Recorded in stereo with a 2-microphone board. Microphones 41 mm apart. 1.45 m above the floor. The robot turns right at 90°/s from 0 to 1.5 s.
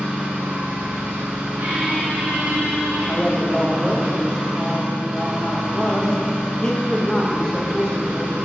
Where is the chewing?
I don't hear chewing.